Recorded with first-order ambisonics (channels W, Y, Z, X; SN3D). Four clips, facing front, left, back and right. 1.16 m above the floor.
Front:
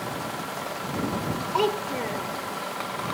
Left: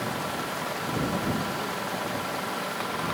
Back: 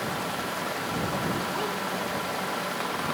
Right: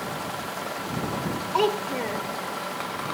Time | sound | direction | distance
1.5 | a child speaking | 55° right | ?